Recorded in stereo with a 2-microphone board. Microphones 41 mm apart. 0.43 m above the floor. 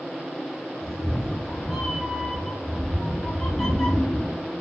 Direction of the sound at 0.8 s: 20° left (ahead or behind).